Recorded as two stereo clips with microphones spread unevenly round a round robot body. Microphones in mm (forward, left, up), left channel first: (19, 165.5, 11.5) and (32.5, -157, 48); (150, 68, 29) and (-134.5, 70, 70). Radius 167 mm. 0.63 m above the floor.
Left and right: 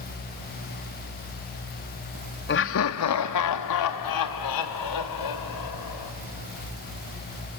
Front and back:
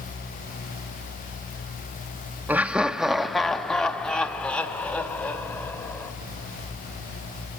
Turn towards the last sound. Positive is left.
turn(degrees=85)